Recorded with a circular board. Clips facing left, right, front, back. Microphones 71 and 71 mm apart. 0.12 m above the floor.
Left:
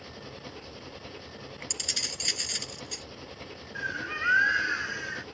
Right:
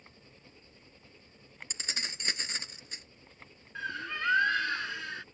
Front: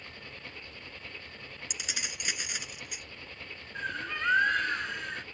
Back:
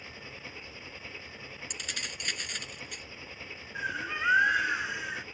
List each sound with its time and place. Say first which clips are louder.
0.0 s an engine running: left 14 dB, back 1 dB; 95° left
1.7 s keys jangling: left 1 dB, front 1 dB; 70° right
3.8 s a bird: left 3 dB, back 1 dB; 115° left